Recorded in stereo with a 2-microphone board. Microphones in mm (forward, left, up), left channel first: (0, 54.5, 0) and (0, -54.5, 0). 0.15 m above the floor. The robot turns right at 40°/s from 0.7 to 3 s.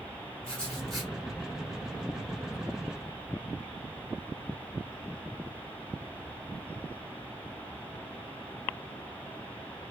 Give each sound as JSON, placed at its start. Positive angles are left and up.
{"t": 0.4, "sound": "writing", "side_deg": 10, "distance_m": 2.0}